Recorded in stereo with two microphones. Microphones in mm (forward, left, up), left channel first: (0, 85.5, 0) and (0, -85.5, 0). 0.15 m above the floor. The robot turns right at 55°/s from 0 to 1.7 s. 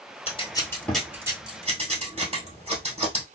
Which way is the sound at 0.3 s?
35° left (ahead or behind).